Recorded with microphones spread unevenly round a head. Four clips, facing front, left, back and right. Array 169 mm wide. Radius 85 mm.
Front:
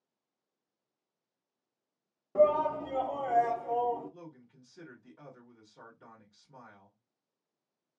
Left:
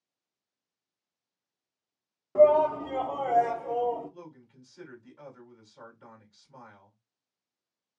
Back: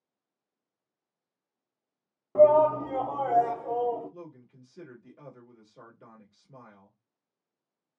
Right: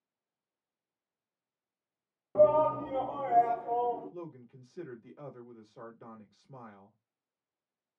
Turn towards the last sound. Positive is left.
turn(degrees=-120)